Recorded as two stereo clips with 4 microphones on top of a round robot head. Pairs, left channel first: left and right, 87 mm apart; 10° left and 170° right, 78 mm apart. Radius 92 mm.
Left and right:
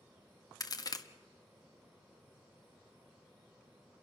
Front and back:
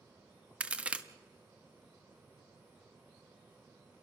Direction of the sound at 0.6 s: 120° left.